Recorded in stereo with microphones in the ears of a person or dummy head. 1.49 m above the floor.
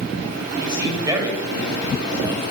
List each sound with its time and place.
0.6 s a man speaking: 25° right (ahead or behind), 9 m